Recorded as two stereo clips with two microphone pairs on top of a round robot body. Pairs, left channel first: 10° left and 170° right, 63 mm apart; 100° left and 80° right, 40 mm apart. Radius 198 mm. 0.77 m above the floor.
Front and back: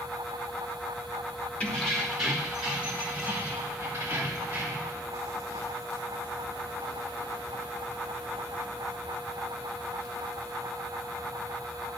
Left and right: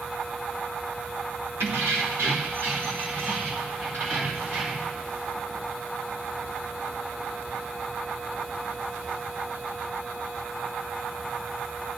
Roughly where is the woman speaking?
No woman speaking in this recording.